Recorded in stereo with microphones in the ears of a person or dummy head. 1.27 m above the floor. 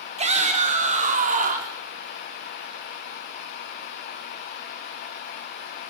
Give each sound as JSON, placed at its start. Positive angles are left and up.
{"t": 0.2, "sound": "a shout", "side_deg": -35, "distance_m": 4.0}